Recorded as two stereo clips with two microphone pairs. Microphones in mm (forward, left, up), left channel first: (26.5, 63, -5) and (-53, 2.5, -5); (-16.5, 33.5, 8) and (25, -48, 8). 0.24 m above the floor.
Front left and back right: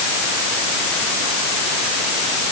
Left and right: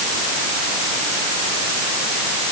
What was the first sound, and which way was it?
Only background noise.